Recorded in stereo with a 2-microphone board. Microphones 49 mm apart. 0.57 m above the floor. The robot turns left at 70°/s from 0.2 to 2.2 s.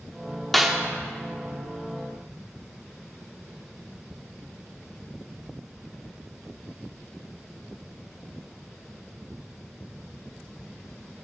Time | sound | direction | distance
0.5 | a snare drum | centre (ahead or behind) | 0.8 m